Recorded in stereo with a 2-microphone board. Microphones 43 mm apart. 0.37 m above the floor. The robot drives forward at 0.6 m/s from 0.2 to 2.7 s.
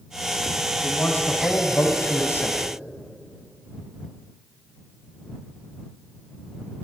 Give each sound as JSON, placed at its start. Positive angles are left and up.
{"t": 0.8, "sound": "a man speaking", "side_deg": 55, "distance_m": 3.0}